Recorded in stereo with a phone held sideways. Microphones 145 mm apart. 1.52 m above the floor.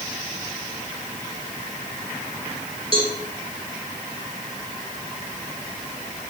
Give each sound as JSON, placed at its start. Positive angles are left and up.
{"t": 2.9, "sound": "a cowbell", "side_deg": -40, "distance_m": 5.0}